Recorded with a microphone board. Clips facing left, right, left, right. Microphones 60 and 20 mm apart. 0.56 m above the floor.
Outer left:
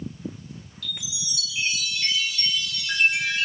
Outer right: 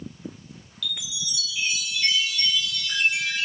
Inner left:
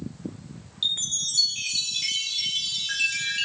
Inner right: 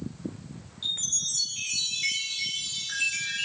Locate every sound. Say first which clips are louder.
0.8 s a chime: outer right 3 dB, inner left 3 dB; 45° left (ahead or behind), 3.5 m